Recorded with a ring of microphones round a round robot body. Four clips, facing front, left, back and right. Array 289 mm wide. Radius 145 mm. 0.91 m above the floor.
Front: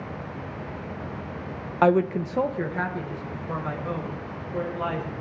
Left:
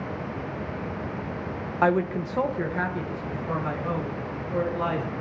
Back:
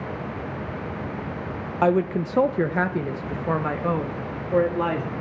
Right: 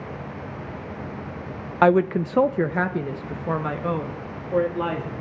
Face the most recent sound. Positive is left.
turn(degrees=-155)